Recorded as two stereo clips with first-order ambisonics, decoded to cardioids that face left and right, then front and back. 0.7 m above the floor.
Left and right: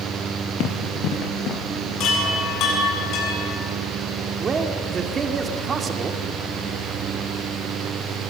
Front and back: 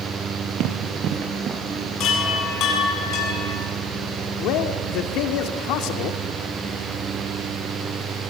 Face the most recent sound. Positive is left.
turn(degrees=-20)